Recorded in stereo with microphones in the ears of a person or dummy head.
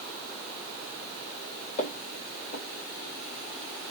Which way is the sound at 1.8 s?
45° left (ahead or behind).